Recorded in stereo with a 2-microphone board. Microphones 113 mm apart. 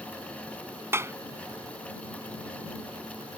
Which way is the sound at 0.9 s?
20° right (ahead or behind).